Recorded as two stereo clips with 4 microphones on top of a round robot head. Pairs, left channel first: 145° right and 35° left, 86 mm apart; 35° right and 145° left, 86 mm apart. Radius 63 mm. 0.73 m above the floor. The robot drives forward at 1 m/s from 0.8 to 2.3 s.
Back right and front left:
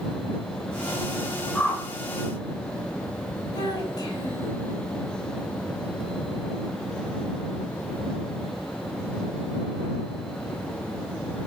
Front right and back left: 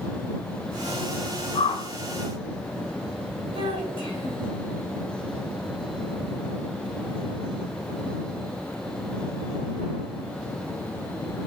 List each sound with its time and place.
1.6 s a whoosh: 65° right, 1.4 m; by 1.9 s 80° right, 1.3 m
3.5 s a child speaking: 175° left, 2.5 m